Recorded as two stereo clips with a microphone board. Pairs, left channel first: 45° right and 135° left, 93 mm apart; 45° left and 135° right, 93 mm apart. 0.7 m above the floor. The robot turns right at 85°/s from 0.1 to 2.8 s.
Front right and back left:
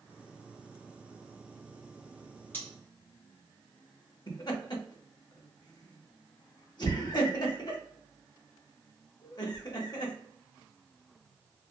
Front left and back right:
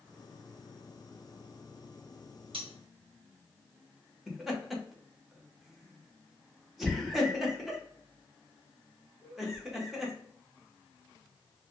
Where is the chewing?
No chewing in this recording.